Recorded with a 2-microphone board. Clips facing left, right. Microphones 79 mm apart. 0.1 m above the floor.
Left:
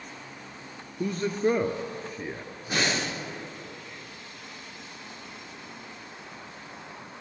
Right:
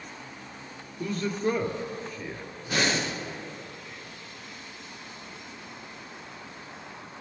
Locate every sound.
1.0 s a man speaking: 30° left (ahead or behind), 1.4 m
2.7 s breathing: 25° left (ahead or behind), 7 m